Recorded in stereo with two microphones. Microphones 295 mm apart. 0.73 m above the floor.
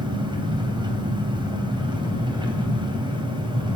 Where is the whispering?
No whispering in this recording.